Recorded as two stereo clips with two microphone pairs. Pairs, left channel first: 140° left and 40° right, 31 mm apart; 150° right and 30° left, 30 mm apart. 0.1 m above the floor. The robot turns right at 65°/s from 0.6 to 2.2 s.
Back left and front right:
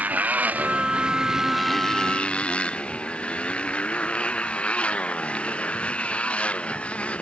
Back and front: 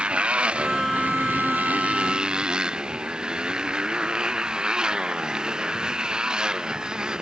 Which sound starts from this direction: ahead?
A motorcycle, at 0.0 s.